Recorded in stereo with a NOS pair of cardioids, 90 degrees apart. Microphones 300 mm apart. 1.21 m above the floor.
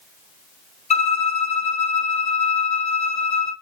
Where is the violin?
20° left, 1.0 m.